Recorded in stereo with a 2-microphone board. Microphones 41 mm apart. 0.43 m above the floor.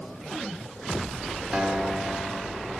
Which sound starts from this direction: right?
A guitar, at 1.5 s.